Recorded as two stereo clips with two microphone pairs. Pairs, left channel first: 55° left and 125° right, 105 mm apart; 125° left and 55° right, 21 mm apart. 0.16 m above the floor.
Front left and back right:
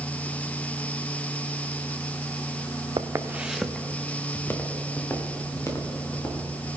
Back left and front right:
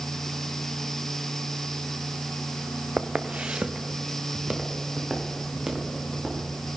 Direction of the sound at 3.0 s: 75° right.